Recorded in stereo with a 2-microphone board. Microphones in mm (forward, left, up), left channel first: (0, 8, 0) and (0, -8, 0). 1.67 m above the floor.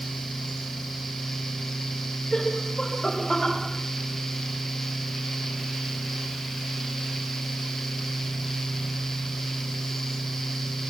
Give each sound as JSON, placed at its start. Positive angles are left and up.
{"t": 2.3, "sound": "laughter", "side_deg": 15, "distance_m": 7.0}